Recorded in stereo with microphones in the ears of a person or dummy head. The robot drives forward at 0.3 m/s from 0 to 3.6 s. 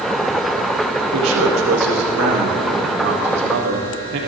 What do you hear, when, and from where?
1.1 s a man speaking: 85° right, 2.5 m; by 4.2 s 80° right, 2.5 m